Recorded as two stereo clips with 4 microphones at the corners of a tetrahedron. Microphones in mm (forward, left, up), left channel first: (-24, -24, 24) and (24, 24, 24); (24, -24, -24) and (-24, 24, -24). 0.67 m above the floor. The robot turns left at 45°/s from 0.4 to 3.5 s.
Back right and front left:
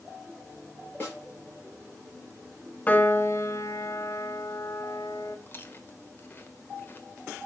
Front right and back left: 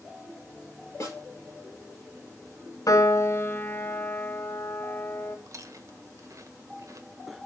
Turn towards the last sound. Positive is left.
turn(degrees=170)